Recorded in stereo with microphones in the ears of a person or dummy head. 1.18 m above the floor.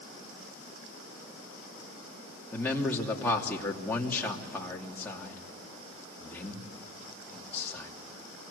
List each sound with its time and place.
2.5 s a man speaking: 10° left (ahead or behind), 2.5 m